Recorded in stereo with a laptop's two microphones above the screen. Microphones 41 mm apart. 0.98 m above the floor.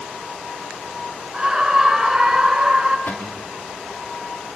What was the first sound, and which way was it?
A scream, 15° right (ahead or behind).